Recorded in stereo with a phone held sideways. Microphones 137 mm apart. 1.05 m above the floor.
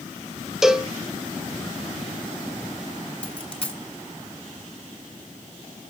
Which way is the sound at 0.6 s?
5° right (ahead or behind).